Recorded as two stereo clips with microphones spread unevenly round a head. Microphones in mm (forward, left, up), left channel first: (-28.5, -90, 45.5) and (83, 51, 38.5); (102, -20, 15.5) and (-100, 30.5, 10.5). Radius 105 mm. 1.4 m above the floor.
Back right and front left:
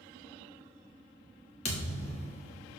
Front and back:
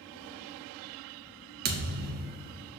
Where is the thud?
170° right, 1.0 m.